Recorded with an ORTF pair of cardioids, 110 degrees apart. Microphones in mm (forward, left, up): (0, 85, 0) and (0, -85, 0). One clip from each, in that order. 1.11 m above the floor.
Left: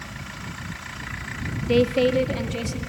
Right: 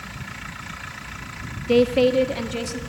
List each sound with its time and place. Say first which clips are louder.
1.7 s a woman speaking: right 2 dB; 10° right, 0.9 m